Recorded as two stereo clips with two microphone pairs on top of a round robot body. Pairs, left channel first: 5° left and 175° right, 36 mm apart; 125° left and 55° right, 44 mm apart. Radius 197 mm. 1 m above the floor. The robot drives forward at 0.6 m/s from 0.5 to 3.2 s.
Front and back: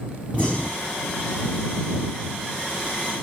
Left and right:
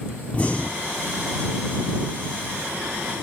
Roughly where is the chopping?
I don't hear chopping.